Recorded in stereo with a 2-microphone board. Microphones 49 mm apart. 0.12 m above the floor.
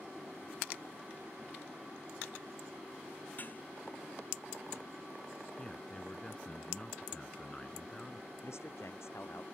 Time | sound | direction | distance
3.4 | dishes clattering | 40° left (ahead or behind) | ?
5.6 | a man speaking | 20° left (ahead or behind) | ?
8.4 | a man speaking | 65° left (ahead or behind) | ?